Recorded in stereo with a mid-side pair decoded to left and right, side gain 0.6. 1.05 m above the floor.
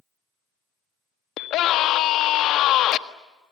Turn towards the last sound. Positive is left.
turn(degrees=60)